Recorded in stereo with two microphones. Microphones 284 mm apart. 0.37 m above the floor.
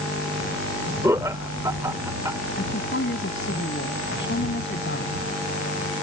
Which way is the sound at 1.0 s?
10° right (ahead or behind).